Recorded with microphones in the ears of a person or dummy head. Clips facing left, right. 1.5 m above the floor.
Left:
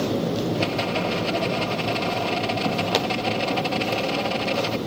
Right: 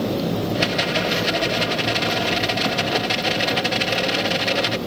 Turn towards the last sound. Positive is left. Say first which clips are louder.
# right 2 dB
turn(degrees=-20)  # may be behind; listen again after turning